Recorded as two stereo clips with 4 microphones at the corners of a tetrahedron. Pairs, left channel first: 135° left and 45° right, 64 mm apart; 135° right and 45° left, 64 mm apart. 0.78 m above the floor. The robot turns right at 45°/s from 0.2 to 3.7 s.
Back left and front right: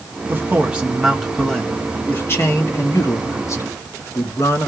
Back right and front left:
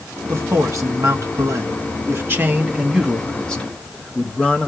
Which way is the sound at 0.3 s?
5° left.